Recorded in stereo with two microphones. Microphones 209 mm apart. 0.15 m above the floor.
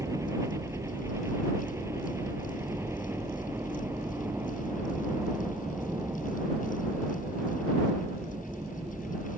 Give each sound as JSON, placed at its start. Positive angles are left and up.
{"t": 0.0, "sound": "a helicopter", "side_deg": -15}